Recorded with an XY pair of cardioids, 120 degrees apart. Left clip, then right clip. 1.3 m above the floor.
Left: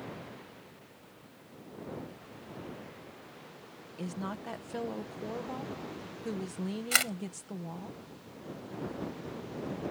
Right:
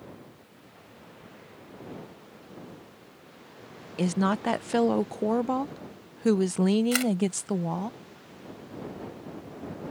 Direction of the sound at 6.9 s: 15° left.